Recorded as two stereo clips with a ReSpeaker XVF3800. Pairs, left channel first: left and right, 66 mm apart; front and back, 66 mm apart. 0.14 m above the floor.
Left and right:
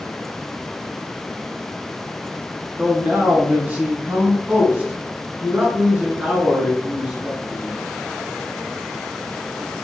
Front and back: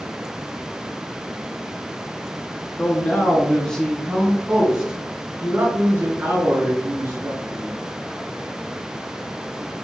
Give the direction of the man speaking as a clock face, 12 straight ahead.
2 o'clock.